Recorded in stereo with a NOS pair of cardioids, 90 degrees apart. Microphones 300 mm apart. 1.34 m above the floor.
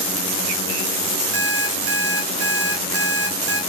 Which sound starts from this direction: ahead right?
An alarm clock, at 1.3 s.